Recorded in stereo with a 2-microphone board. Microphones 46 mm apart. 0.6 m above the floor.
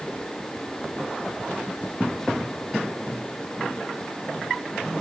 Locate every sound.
Only background noise.